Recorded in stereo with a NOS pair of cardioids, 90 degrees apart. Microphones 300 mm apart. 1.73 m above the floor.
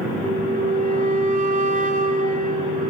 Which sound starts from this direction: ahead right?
A flute, at 0.2 s.